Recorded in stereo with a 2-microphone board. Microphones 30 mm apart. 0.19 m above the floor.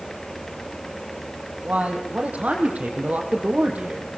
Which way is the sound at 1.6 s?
45° right (ahead or behind).